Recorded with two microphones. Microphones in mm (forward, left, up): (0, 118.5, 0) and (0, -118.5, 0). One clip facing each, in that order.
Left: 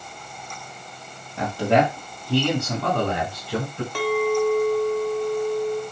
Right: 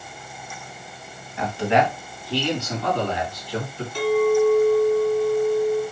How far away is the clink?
About 1.7 m.